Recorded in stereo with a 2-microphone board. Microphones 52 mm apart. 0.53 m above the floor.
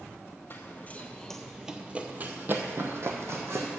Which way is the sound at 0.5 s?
45° left (ahead or behind).